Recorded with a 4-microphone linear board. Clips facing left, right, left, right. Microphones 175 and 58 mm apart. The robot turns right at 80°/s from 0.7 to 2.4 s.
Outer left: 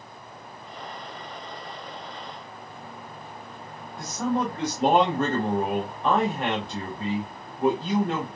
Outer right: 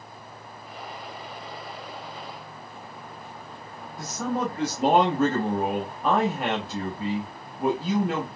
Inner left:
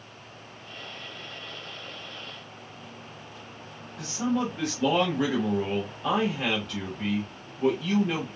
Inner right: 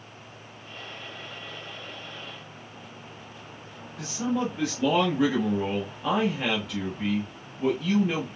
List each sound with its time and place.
4.0 s a man speaking: 5° right (ahead or behind), 1.0 m